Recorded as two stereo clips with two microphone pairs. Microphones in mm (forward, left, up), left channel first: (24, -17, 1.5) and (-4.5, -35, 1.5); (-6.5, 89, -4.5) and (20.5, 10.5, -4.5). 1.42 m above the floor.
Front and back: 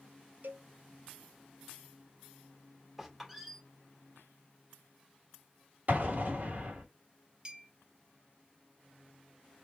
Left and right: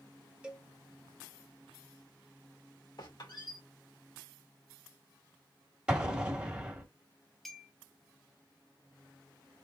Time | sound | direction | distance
0.4 | a cowbell | 150° right | 0.8 m
3.0 | a squeak | 125° left | 2 m
5.9 | an explosion | 145° right | 1.4 m
7.5 | a clink | 170° right | 0.7 m